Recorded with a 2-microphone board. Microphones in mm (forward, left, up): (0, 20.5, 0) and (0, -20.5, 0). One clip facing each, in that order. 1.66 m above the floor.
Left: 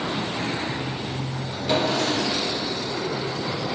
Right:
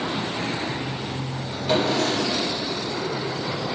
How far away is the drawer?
About 1.5 m.